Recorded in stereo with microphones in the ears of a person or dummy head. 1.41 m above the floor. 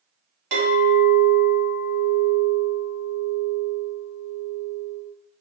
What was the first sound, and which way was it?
A clink, 70° right (ahead or behind).